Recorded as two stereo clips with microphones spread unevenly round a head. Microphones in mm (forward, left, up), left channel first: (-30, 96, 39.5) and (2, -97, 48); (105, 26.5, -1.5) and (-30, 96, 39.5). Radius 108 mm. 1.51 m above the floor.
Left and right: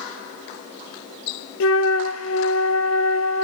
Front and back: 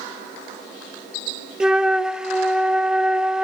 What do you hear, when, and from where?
1.6 s a flute: 80° left, 0.5 m